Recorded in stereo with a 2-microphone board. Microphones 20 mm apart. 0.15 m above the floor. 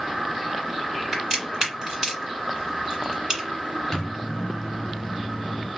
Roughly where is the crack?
Right.